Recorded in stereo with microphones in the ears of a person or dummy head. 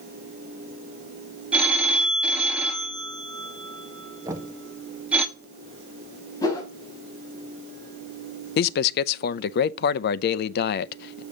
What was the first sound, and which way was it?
A phone ringing, 5° right (ahead or behind).